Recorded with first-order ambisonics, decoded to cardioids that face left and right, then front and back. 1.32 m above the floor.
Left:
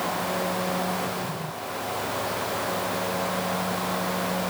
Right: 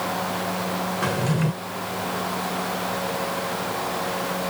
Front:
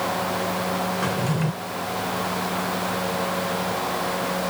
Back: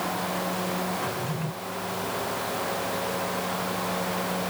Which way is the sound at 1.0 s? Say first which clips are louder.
Right 5 dB, front 5 dB; 60° right.